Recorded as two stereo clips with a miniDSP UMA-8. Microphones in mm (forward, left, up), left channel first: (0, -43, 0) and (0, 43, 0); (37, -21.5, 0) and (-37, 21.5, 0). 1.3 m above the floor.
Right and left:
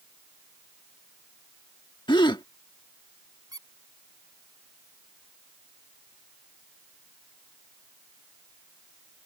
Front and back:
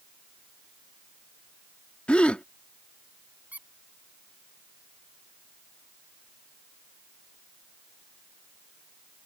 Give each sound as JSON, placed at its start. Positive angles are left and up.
{"t": 2.1, "sound": "a gasp", "azimuth_deg": -105}
{"t": 3.5, "sound": "a squeak", "azimuth_deg": 85}